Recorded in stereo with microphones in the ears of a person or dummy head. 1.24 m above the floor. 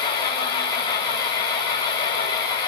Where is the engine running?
25° left (ahead or behind), 3.5 m.